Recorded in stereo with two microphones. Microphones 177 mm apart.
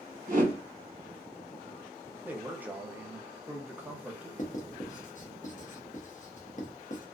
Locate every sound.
0.3 s a whoosh: 50° right (ahead or behind), 0.9 m
2.2 s a man speaking: 10° right (ahead or behind), 0.7 m
4.4 s writing: 50° left (ahead or behind), 0.7 m